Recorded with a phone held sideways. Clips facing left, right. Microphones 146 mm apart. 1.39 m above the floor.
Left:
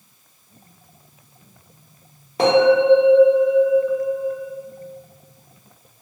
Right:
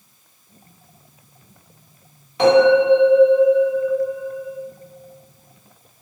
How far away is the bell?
About 1.1 m.